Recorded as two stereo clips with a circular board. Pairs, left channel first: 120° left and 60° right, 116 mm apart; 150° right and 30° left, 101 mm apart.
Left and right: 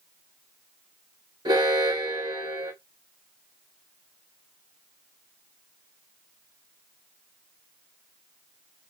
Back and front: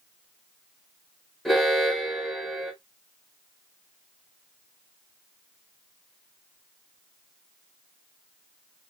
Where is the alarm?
65° right, 0.9 m.